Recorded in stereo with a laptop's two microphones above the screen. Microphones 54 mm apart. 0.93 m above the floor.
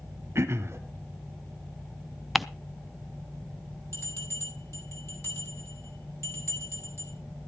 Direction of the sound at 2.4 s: Centre (ahead or behind).